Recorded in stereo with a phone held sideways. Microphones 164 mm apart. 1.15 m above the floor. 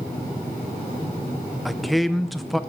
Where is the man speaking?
Centre (ahead or behind), 0.5 m.